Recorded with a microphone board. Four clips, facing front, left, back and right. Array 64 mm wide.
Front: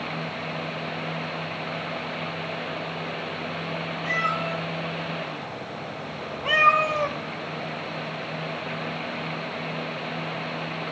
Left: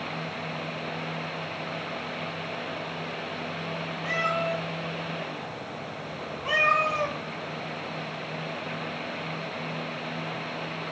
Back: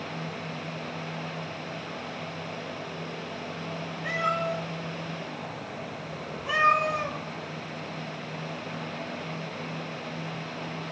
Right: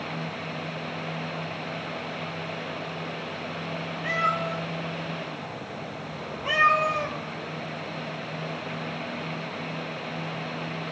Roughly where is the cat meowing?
Right.